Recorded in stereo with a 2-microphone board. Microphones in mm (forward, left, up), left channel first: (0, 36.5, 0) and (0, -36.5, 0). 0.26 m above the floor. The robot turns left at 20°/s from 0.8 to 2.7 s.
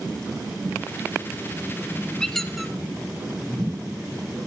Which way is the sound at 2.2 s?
5° left (ahead or behind).